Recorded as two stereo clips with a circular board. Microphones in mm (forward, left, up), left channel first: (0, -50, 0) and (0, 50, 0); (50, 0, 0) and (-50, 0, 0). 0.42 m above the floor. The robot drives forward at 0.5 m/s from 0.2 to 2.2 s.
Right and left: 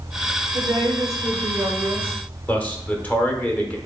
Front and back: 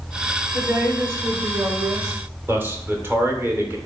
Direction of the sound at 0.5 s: 100° left.